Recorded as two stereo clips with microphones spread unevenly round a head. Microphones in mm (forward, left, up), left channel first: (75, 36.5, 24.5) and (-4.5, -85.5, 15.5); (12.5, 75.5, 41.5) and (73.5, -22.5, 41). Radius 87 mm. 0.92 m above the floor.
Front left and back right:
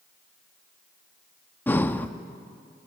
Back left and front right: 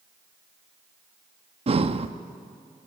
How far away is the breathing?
About 1.0 m.